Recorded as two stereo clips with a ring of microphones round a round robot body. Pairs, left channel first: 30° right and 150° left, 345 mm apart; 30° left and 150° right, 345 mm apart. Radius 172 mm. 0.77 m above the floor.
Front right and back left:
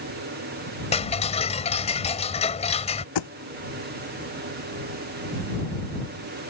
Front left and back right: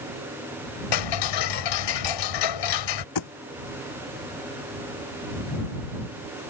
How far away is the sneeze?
No sneeze in this recording.